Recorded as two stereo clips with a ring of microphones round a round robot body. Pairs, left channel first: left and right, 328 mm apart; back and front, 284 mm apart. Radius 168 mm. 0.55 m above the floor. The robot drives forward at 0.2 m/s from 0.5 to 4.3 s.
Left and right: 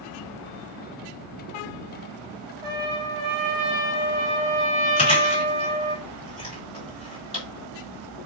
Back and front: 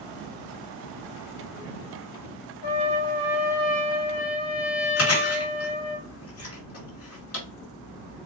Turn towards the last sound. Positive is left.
turn(degrees=160)